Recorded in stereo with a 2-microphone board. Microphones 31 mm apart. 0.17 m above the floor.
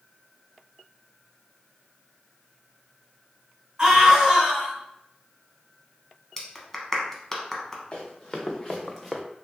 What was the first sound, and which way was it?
A scream, 20° right (ahead or behind).